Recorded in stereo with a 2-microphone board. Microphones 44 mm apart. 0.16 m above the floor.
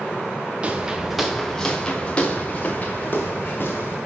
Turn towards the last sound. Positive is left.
turn(degrees=45)  # may be behind; listen again after turning